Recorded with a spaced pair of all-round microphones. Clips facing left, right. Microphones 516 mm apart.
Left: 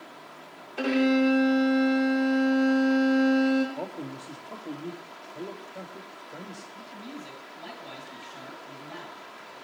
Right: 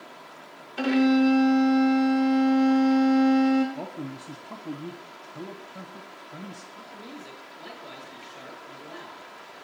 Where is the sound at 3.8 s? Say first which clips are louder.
Right 1 dB; 30° right (ahead or behind), 0.5 m.